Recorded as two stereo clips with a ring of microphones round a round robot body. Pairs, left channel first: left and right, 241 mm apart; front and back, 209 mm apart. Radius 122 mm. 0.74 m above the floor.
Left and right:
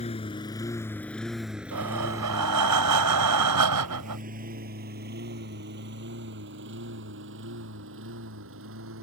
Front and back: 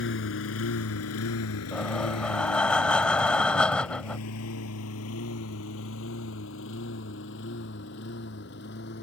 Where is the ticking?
I don't hear ticking.